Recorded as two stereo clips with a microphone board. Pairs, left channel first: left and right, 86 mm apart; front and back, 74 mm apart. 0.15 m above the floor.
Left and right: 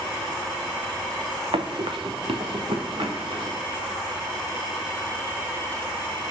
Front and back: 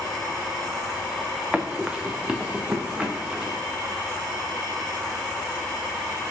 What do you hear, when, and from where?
1.5 s running footsteps: 105° right, 0.8 m; by 3.6 s 100° right, 1.8 m